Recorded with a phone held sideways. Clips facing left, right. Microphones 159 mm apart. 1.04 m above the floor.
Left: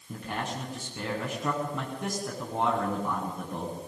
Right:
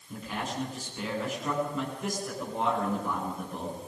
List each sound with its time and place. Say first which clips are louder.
0.1 s a man speaking: left 1 dB; 65° left (ahead or behind), 8.5 m